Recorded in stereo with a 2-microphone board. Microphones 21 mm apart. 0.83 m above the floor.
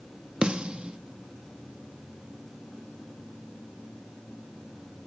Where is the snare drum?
55° right (ahead or behind), 1.5 m.